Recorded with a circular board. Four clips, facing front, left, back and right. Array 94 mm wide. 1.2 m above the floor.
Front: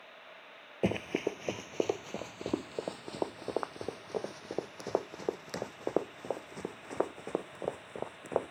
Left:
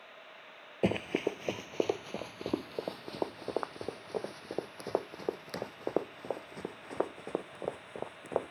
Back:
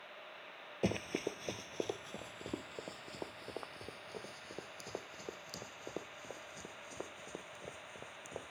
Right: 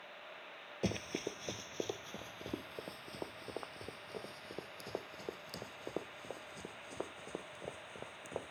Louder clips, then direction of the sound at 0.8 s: Left 9 dB, front 5 dB; 60° left.